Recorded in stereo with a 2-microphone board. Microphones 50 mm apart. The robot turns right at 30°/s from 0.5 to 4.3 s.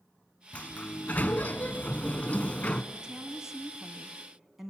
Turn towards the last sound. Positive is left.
turn(degrees=-5)  # may be behind; listen again after turning